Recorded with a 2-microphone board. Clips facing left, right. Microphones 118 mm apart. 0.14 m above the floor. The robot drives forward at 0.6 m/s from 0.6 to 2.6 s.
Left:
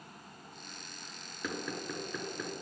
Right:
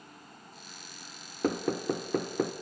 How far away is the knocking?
About 1.4 m.